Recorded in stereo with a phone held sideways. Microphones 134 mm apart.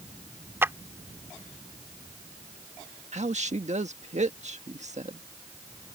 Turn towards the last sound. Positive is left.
turn(degrees=-60)  # may be behind; listen again after turning